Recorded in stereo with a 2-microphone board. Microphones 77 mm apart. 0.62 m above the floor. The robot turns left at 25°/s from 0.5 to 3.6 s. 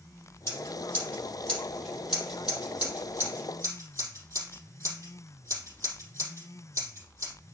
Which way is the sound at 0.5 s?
35° left (ahead or behind).